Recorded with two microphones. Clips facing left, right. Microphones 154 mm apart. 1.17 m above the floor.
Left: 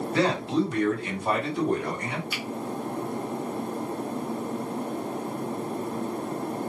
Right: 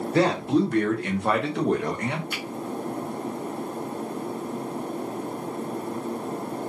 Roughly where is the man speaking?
Right.